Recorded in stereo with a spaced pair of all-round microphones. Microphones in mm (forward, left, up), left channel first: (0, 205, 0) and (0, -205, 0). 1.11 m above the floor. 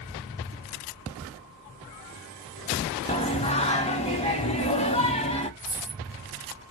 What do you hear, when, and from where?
3.1 s singing: 15° left (ahead or behind), 0.6 m
5.6 s a dropped coin: centre (ahead or behind), 1.4 m